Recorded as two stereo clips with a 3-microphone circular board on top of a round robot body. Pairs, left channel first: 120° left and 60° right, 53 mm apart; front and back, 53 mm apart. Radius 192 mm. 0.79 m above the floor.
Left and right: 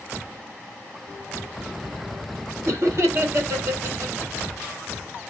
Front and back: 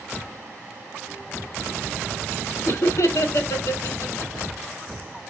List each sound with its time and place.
2.6 s laughter: 25° right, 2 m; by 4.5 s 10° right, 3 m